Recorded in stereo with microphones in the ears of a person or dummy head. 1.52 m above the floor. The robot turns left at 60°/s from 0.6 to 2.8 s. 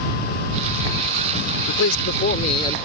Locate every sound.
1.7 s a man speaking: 80° left; by 2.8 s 15° left